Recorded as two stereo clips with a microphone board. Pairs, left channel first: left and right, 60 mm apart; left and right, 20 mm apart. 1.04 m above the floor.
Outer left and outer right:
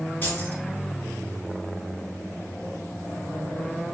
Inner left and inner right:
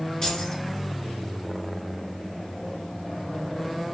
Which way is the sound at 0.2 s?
40° left (ahead or behind).